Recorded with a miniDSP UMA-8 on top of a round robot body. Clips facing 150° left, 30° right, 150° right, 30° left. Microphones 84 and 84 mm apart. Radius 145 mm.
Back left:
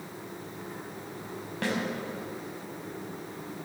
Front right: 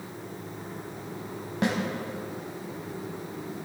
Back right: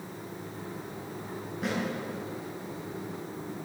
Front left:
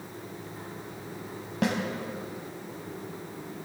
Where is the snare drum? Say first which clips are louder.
Front right 4 dB, front left 5 dB; 40° left, 4 m.